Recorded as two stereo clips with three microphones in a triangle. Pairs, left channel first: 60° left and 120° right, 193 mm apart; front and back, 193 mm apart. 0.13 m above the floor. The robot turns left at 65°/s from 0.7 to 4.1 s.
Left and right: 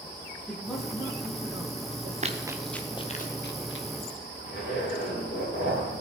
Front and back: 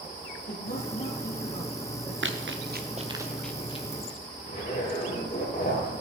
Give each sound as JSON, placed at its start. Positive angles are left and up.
{"t": 0.5, "sound": "a man speaking", "azimuth_deg": -25, "distance_m": 3.5}
{"t": 2.2, "sound": "running footsteps", "azimuth_deg": -170, "distance_m": 1.2}
{"t": 4.5, "sound": "a zipper", "azimuth_deg": 50, "distance_m": 6.0}